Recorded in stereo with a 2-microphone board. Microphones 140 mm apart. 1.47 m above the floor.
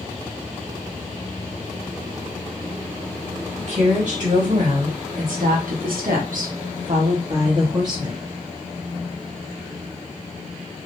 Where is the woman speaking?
50° right (ahead or behind), 2.0 m; by 8.2 s 25° right (ahead or behind), 1.5 m.